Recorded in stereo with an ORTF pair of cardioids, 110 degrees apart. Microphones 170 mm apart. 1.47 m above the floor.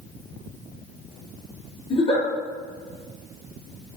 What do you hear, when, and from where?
1.9 s a giggle: 30° left, 1.4 m